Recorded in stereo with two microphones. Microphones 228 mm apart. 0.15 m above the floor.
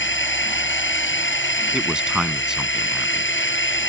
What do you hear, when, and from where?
0.0 s a drone: 50° left (ahead or behind)
1.7 s a man speaking: 5° right (ahead or behind)